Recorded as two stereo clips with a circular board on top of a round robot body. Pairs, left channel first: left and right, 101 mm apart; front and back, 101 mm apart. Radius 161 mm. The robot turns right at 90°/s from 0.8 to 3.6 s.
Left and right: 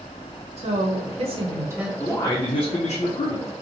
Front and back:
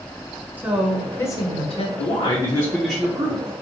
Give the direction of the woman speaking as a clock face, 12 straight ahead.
4 o'clock.